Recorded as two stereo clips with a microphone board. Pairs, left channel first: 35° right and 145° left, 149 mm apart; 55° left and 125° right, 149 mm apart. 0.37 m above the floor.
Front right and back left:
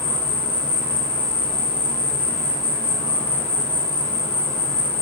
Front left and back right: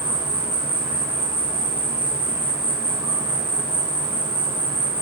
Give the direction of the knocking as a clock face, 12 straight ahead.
No knocking in this recording.